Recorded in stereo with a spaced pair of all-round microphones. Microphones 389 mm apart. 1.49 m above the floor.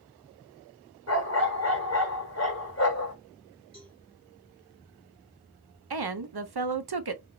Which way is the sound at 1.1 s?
40° left (ahead or behind).